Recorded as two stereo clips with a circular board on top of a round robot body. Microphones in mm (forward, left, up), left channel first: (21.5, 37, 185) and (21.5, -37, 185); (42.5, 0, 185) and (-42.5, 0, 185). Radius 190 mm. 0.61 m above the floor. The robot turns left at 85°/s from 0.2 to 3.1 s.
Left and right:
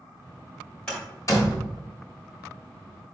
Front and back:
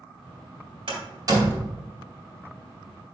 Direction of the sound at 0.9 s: 170° left.